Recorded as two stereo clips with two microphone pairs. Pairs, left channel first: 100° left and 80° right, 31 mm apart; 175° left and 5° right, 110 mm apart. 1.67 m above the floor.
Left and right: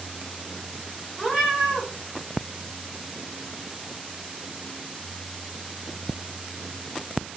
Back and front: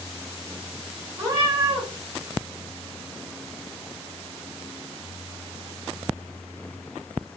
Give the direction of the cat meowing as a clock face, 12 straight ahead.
12 o'clock.